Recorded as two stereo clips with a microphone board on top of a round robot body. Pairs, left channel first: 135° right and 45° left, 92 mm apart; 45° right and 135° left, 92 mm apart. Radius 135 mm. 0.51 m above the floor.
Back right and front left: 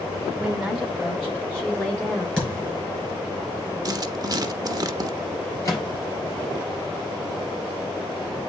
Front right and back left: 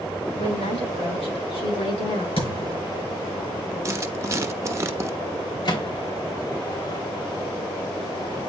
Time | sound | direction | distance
0.4 | a woman speaking | 45° right | 5 m
2.4 | a thud | 55° right | 6 m
3.9 | writing | 80° left | 0.9 m
5.7 | a microwave | 80° right | 3.5 m